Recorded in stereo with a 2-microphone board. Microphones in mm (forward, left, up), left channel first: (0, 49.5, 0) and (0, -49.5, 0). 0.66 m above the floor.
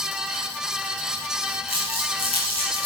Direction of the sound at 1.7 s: 80° left.